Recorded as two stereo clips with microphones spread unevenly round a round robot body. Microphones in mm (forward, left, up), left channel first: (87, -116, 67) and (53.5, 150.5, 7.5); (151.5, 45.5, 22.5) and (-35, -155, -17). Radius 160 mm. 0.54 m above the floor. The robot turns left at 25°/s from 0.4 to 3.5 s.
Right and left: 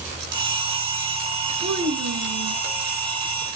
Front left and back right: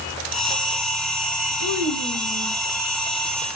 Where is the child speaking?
70° left, 3.5 m; by 2.6 s 45° left, 3.5 m.